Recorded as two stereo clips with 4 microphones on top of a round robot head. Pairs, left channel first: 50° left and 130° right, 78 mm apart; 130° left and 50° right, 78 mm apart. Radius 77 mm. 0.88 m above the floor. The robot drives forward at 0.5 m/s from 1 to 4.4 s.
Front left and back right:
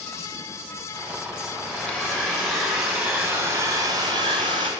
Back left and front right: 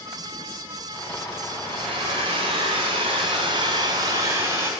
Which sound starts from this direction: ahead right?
A hair dryer, at 1.6 s.